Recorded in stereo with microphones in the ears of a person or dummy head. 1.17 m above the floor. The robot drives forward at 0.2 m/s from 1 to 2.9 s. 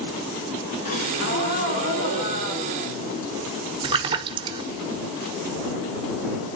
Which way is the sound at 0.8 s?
45° left (ahead or behind).